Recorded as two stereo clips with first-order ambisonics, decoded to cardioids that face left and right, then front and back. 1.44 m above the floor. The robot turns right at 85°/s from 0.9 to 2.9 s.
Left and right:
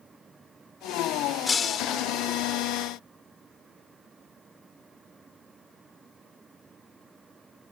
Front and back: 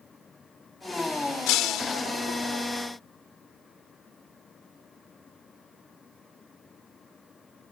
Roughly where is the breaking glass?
Ahead.